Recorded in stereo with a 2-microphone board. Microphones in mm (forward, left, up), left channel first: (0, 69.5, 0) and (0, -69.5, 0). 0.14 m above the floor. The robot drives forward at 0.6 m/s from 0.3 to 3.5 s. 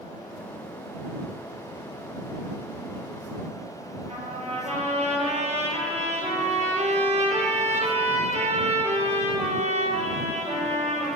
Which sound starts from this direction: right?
A trumpet, at 4.1 s.